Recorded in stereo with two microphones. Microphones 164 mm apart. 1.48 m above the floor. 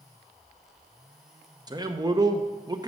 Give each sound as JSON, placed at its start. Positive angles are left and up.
{"t": 1.7, "sound": "a man speaking", "side_deg": -25, "distance_m": 0.6}